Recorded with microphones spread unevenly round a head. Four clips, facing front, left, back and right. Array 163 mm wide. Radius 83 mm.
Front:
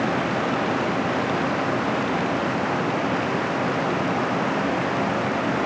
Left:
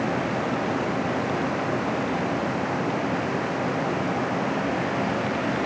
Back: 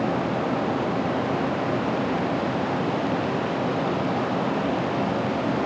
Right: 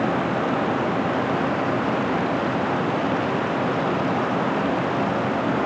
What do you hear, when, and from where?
Only background noise.